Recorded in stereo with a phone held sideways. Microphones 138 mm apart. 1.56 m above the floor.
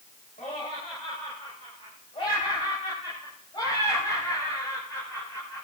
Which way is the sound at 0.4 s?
65° left (ahead or behind).